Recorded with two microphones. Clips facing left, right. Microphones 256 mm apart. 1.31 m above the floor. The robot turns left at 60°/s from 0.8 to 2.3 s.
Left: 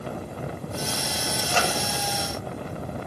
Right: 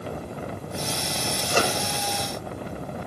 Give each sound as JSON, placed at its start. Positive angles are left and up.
{"t": 1.5, "sound": "a microwave", "side_deg": -50, "distance_m": 1.1}